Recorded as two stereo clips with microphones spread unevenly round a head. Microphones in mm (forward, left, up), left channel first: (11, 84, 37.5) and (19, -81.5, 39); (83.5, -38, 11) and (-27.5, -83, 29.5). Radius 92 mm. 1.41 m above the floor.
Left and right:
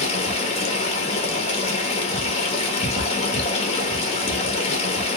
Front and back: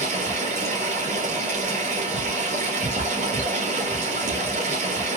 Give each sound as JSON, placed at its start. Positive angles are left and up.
{"t": 0.0, "sound": "running water", "azimuth_deg": 150, "distance_m": 1.5}